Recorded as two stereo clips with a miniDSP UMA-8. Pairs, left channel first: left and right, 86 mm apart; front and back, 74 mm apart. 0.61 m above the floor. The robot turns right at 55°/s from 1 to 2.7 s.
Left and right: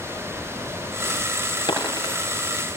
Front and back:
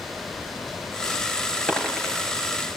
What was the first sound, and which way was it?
A dropped coin, 70° left.